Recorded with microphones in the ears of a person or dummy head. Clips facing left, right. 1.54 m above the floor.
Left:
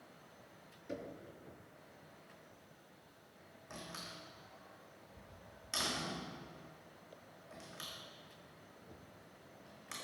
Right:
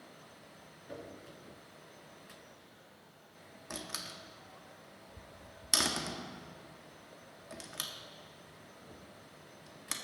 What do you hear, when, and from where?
0.9 s knocking: 30° left (ahead or behind), 2.5 m
3.7 s a door slam: 65° right (ahead or behind), 2.0 m